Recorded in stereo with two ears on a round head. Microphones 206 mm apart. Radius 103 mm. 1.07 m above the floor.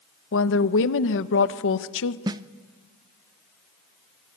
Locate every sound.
0.3 s a woman speaking: 60° left (ahead or behind), 1.0 m
2.3 s a snare drum: 15° right (ahead or behind), 0.6 m